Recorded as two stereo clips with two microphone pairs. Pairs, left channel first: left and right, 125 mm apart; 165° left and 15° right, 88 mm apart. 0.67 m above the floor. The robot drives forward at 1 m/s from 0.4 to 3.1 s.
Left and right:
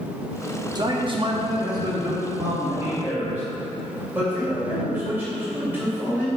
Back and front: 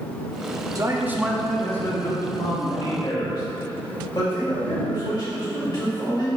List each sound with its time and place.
0.8 s a man speaking: 50° right, 0.9 m; by 6.3 s 165° right, 2 m